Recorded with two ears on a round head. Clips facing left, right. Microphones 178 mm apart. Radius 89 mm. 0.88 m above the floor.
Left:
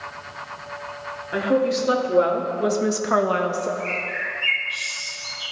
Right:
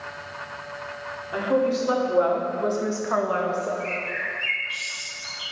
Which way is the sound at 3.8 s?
15° right (ahead or behind).